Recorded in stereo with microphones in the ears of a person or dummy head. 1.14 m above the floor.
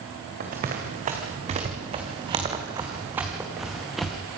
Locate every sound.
0.4 s running footsteps: 45° right (ahead or behind), 4 m; by 4.2 s centre (ahead or behind), 3.5 m